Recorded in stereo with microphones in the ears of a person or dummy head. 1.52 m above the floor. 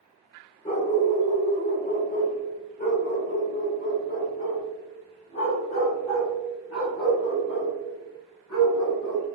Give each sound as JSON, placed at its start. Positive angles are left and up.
{"t": 0.7, "sound": "a dog barking", "side_deg": 30, "distance_m": 1.4}